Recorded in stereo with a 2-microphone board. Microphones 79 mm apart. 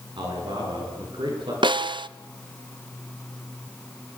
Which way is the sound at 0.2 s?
70° right (ahead or behind).